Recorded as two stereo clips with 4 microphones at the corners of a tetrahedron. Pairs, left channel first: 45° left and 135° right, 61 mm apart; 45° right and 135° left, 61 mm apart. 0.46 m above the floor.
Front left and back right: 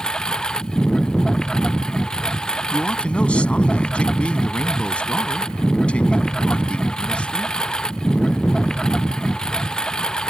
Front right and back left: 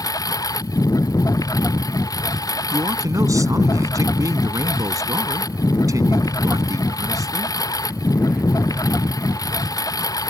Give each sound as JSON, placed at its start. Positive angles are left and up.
{"t": 0.0, "sound": "a lawn mower", "azimuth_deg": -35}
{"t": 2.7, "sound": "a man speaking", "azimuth_deg": 115}